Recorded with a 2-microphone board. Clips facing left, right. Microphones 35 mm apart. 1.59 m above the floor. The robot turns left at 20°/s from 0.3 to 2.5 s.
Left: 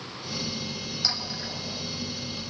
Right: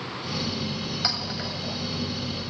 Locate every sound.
1.0 s a clink: 35° right (ahead or behind), 7.5 m; by 1.5 s 45° right (ahead or behind), 7.5 m